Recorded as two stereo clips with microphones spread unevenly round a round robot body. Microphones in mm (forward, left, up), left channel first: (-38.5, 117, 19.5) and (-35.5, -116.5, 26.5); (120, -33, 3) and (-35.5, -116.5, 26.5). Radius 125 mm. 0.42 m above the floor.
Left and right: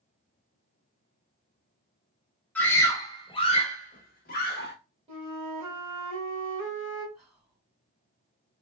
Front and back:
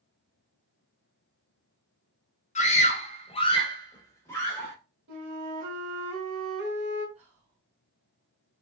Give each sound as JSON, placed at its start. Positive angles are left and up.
{"t": 2.5, "sound": "a scream", "azimuth_deg": 10, "distance_m": 1.1}
{"t": 5.1, "sound": "a flute", "azimuth_deg": -155, "distance_m": 1.7}
{"t": 7.2, "sound": "whispering", "azimuth_deg": -160, "distance_m": 2.0}